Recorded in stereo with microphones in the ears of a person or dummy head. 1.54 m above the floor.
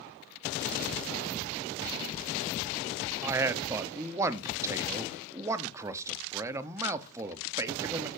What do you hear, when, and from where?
3.2 s a man speaking: 15° right (ahead or behind), 0.5 m